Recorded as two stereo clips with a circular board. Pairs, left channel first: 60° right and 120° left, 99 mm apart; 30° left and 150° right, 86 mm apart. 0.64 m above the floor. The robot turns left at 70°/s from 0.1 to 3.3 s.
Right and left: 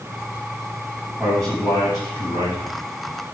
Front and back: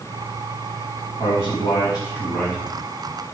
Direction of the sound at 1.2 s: 40° left.